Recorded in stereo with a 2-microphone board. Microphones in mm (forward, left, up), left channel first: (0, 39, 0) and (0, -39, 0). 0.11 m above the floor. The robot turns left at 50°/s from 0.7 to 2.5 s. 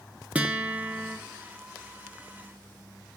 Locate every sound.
0.3 s a guitar: 20° right (ahead or behind), 0.7 m; by 1.2 s 10° right (ahead or behind), 0.7 m